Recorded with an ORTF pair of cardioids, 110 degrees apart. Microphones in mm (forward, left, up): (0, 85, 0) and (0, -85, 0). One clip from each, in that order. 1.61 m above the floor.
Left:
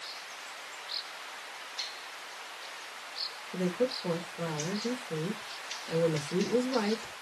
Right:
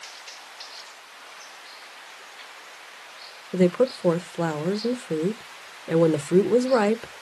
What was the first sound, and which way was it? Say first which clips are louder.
A woman speaking: right 10 dB; 65° right.